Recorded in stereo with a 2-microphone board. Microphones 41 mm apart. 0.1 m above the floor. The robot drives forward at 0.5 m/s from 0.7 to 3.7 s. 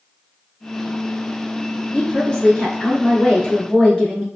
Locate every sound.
1.9 s a woman speaking: 25° left (ahead or behind), 1.5 m; by 4.3 s 30° left (ahead or behind), 1.4 m